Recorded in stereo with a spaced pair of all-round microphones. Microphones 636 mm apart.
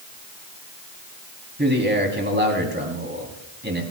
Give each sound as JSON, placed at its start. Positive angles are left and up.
{"t": 1.6, "sound": "a man speaking", "side_deg": -15, "distance_m": 3.0}